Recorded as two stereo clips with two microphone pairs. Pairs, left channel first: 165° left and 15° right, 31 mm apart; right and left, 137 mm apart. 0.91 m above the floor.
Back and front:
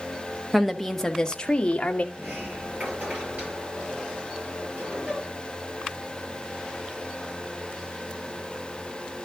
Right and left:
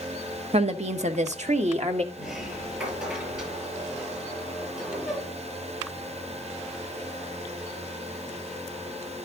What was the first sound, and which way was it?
A woman speaking, 65° left.